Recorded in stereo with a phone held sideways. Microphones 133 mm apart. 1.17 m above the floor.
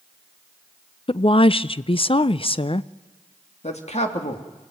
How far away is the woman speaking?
About 0.5 m.